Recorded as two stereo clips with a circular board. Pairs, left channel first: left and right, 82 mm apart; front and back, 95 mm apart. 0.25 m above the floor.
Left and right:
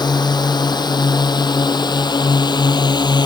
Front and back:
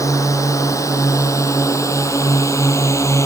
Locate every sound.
0.0 s a drone: 55° left; by 3.3 s 60° left